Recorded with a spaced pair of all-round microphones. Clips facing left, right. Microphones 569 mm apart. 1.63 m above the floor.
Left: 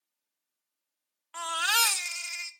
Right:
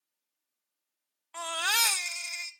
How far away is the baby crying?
About 1.0 m.